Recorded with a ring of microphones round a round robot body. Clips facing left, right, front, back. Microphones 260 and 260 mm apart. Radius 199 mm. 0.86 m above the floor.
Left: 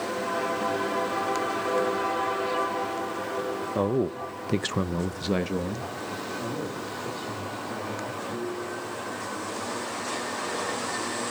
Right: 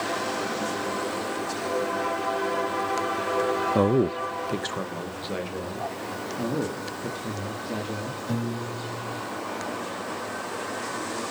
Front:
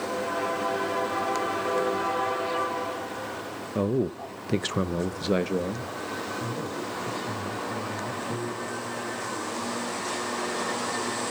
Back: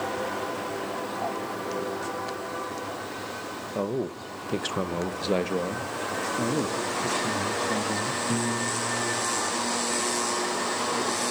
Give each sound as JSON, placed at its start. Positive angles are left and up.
{"t": 3.8, "sound": "a man speaking", "azimuth_deg": -55, "distance_m": 0.8}
{"t": 6.4, "sound": "a man speaking", "azimuth_deg": -145, "distance_m": 1.6}
{"t": 8.3, "sound": "a piano", "azimuth_deg": -110, "distance_m": 1.5}